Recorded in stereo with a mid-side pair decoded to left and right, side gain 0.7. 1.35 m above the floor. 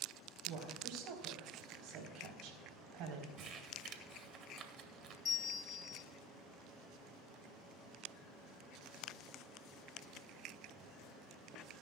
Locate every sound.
0.5 s a woman speaking: 60° right, 4 m
3.4 s crumpling: 45° right, 1.8 m
5.2 s a bell: 35° left, 1.1 m